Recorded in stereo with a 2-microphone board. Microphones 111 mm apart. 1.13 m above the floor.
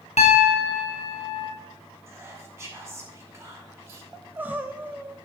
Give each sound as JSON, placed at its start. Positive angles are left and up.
{"t": 0.2, "sound": "a piano", "side_deg": 75, "distance_m": 1.9}
{"t": 2.1, "sound": "whispering", "side_deg": -25, "distance_m": 3.0}
{"t": 4.1, "sound": "crying", "side_deg": -15, "distance_m": 1.0}